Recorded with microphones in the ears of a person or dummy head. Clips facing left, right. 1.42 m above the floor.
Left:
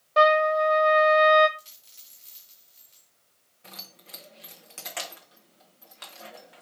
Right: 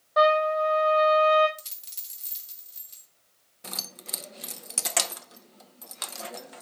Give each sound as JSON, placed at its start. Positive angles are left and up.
{"t": 0.2, "sound": "a trumpet", "side_deg": 30, "distance_m": 1.1}
{"t": 1.6, "sound": "a dropped coin", "side_deg": -65, "distance_m": 3.5}
{"t": 3.6, "sound": "keys jangling", "side_deg": -65, "distance_m": 0.7}